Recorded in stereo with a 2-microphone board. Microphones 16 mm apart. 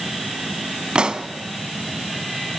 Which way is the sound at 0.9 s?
70° right (ahead or behind).